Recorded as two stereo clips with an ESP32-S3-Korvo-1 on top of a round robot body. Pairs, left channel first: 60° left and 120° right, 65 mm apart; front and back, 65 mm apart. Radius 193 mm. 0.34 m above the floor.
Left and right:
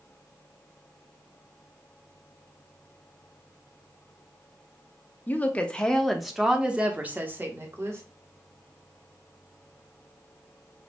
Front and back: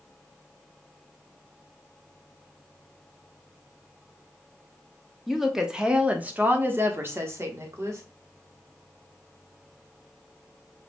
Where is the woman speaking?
95° left, 1.2 m; by 8.0 s 155° right, 1.6 m.